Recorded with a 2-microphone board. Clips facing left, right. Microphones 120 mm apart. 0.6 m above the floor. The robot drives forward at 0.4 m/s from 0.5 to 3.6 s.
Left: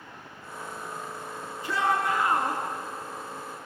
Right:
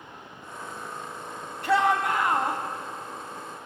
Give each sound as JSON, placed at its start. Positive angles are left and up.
{"t": 1.6, "sound": "a shout", "side_deg": -75, "distance_m": 4.0}